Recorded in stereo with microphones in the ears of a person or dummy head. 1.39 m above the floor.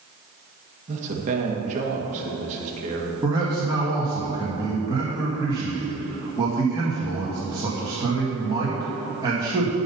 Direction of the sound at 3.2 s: 15° right (ahead or behind).